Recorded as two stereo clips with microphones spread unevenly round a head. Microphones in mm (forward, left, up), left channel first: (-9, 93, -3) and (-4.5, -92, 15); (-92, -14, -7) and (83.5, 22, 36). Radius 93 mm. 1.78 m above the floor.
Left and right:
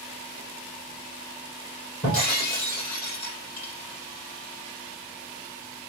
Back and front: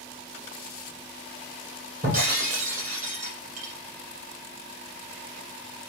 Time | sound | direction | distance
2.0 | breaking glass | 50° left | 4 m